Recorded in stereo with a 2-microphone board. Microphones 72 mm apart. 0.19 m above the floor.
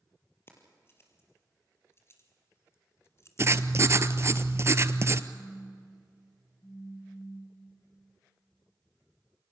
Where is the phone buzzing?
35° left (ahead or behind), 4 m.